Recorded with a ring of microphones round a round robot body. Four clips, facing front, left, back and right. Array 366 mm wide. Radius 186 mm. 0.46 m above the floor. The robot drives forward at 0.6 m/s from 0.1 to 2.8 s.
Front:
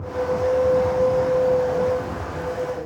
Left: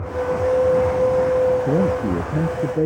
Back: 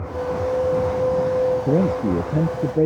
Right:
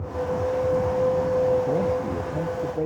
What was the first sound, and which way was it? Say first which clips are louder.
A man speaking: left 4 dB, back 3 dB; 145° left.